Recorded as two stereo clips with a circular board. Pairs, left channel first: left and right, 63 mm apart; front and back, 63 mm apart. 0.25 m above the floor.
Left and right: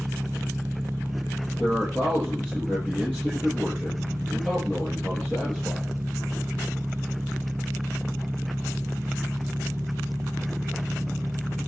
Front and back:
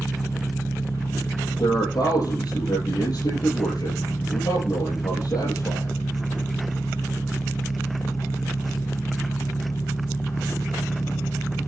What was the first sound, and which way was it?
An engine running, 40° right.